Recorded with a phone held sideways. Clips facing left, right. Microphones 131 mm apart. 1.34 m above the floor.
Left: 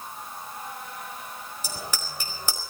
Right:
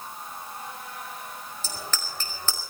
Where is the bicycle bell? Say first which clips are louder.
Left 1 dB; 15° left (ahead or behind), 4.5 m.